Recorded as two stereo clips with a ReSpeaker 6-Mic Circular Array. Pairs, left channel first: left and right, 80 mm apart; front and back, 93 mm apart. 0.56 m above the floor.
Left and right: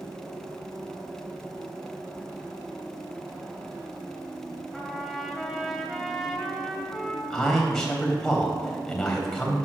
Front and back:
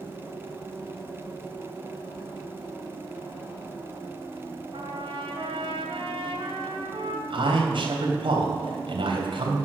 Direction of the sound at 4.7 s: Straight behind.